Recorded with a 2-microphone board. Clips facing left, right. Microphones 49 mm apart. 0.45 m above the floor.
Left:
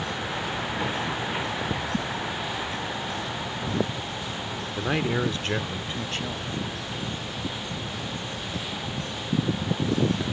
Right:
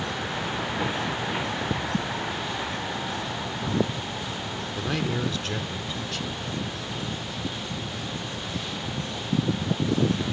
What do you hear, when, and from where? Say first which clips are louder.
4.8 s a man speaking: left 3 dB; 20° left (ahead or behind); by 6.9 s 40° left (ahead or behind)